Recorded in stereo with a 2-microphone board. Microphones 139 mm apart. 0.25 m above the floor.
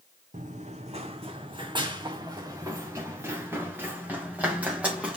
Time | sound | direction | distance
0.3 | running footsteps | 65° right (ahead or behind) | 1.1 m